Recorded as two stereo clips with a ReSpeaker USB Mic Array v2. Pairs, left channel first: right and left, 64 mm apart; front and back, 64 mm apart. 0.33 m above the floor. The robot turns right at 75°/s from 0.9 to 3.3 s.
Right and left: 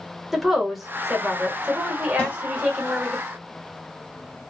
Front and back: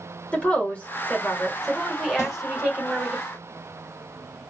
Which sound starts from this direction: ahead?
A woman speaking, at 0.3 s.